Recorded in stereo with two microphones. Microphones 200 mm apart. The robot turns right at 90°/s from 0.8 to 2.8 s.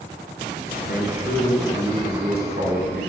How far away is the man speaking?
About 3 m.